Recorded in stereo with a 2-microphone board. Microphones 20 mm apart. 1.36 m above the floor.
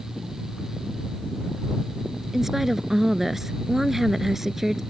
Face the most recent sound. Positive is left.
turn(degrees=-20)  # may be behind; listen again after turning